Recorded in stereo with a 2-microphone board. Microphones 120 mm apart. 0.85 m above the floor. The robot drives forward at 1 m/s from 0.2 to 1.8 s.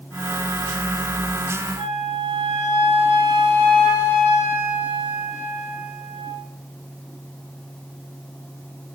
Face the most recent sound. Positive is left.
turn(degrees=-55)  # may be behind; listen again after turning